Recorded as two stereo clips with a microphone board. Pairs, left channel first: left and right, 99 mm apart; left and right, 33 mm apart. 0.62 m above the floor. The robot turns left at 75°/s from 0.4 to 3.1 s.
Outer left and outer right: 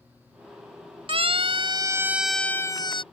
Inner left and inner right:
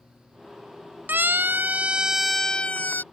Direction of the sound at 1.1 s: 70° right (ahead or behind).